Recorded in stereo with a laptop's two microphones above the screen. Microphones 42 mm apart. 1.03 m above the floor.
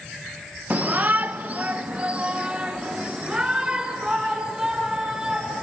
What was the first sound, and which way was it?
A shout, 40° right (ahead or behind).